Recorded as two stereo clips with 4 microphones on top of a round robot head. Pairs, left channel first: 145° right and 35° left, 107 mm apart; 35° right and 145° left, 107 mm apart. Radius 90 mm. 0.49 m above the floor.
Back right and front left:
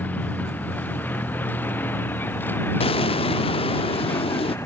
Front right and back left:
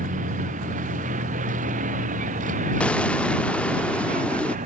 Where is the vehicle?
140° left; by 4.7 s 145° left.